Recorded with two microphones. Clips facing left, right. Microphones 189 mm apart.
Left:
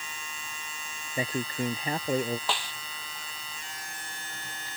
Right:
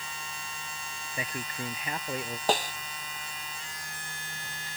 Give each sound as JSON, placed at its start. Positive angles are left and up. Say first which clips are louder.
{"t": 1.2, "sound": "a man speaking", "louder": "left 7 dB", "side_deg": 30}
{"t": 2.5, "sound": "a snare drum", "louder": "right 7 dB", "side_deg": -40}